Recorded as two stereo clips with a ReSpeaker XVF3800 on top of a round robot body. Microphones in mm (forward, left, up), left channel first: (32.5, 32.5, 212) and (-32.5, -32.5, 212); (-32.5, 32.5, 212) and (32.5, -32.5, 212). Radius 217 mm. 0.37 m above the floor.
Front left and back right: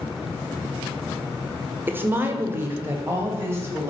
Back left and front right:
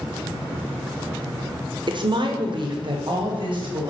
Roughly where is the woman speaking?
Right.